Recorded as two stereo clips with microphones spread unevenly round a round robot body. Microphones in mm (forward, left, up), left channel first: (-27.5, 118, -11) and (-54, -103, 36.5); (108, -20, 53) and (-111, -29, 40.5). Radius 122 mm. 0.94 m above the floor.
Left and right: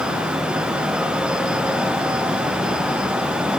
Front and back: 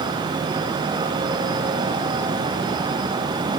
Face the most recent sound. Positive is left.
No sound to turn to.